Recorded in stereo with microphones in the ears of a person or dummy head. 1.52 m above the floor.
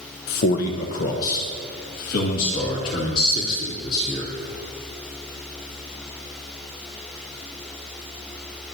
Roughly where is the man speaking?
Left.